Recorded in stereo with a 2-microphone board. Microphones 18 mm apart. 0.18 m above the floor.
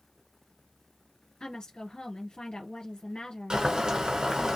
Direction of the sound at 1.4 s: 60° left (ahead or behind).